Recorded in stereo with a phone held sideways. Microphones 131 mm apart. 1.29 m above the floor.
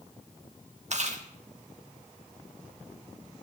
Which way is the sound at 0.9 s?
55° right (ahead or behind).